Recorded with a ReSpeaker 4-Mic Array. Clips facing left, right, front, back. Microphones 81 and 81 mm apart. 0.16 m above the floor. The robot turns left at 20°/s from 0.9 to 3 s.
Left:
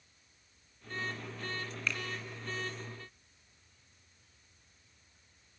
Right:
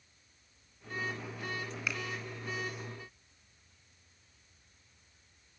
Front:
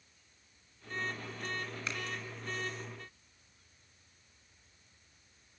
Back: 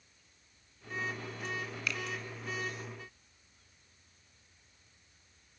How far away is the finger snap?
About 1.6 m.